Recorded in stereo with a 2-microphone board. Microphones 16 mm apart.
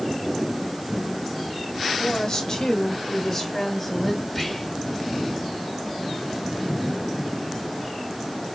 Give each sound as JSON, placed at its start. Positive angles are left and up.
{"t": 1.9, "sound": "a woman speaking", "side_deg": 35, "distance_m": 2.5}
{"t": 4.3, "sound": "whispering", "side_deg": 5, "distance_m": 1.6}